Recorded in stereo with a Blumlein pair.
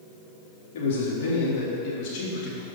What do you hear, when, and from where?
0.7 s a man speaking: 55° left, 3 m; by 2.7 s 35° left, 3.5 m